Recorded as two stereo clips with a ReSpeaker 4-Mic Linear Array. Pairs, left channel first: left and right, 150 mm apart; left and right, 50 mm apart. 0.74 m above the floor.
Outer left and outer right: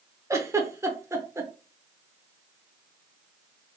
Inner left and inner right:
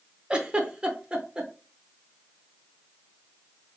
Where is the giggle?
20° right (ahead or behind), 0.6 m.